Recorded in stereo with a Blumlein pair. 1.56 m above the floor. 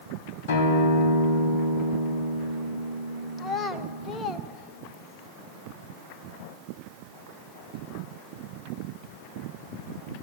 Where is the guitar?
50° left, 4 m.